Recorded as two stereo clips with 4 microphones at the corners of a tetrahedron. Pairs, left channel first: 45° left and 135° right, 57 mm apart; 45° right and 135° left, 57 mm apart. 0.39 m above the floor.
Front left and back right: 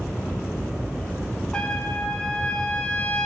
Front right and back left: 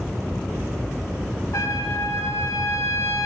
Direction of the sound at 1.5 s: 30° right.